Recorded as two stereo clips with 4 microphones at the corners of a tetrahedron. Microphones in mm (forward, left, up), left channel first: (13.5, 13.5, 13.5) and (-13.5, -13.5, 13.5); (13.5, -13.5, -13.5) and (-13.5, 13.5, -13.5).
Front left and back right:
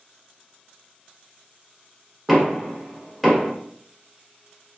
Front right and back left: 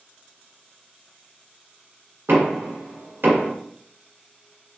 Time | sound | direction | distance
2.3 | knocking | 145° left | 1.0 m